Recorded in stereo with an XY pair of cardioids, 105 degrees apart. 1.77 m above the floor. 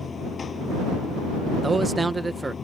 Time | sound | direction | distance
0.0 | running water | 40° left | ?
1.6 | a man speaking | 15° right | ?